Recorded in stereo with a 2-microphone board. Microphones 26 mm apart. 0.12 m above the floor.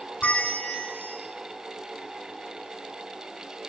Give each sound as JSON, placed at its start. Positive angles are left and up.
{"t": 0.2, "sound": "a bell", "side_deg": 80, "distance_m": 5.0}